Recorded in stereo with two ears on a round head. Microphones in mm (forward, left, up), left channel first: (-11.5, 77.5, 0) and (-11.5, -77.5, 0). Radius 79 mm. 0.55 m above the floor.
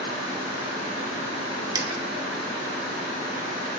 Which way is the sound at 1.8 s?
20° right (ahead or behind).